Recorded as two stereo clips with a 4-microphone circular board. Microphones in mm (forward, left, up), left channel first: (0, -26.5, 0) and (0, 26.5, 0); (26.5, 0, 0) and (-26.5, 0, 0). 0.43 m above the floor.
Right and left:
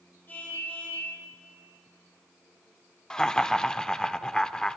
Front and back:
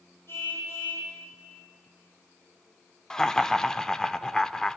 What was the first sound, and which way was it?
A car horn, 40° right.